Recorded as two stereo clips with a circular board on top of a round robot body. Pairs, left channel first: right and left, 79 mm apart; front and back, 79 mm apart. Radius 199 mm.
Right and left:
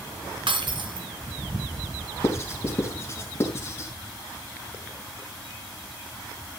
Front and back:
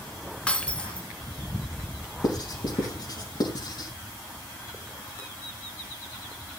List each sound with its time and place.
0.5 s breaking glass: 75° left, 3 m
2.2 s writing: 35° right, 4.5 m